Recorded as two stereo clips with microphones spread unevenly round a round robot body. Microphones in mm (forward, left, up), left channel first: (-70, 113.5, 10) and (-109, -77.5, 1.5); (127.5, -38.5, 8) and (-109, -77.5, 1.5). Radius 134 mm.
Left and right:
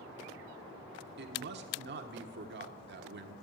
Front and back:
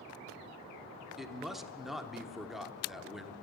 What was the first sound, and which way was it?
A man speaking, 85° right.